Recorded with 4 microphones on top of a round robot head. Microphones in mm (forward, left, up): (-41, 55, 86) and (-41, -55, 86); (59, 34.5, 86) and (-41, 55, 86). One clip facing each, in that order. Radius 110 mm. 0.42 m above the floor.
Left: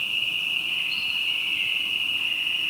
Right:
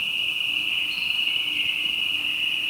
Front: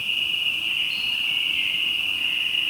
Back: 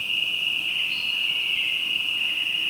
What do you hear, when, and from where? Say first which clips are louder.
0.0 s an insect: right 1 dB, front 1 dB; 5° left, 1.9 m